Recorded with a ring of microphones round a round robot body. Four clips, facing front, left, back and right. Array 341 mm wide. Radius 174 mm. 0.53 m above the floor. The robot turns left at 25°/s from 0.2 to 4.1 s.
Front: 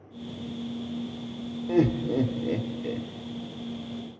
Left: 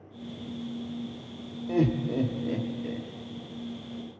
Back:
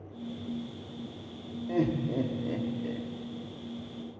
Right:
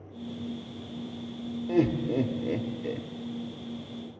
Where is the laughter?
20° right, 1.3 m; by 3.1 s 55° right, 1.3 m.